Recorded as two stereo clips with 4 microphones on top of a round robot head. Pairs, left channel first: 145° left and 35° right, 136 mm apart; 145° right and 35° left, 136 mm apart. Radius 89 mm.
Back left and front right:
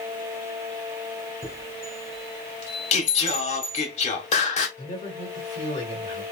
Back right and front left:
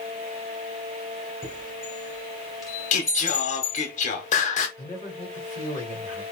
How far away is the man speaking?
About 2.0 m.